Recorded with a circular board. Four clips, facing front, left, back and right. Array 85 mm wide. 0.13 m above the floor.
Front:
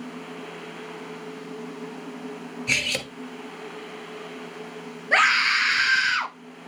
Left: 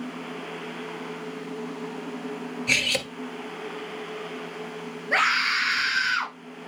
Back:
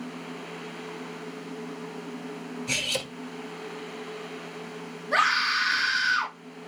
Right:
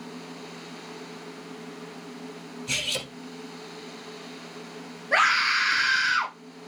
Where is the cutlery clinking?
50° left, 1.2 m.